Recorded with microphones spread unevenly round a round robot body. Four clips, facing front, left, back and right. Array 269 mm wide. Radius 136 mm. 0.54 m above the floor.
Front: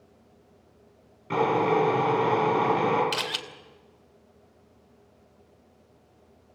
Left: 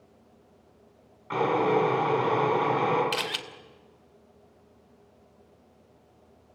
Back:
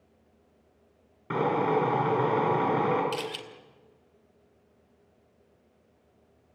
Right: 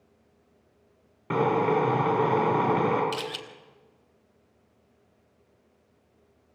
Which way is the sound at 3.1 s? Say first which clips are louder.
Left 1 dB, front 1 dB; 45° left.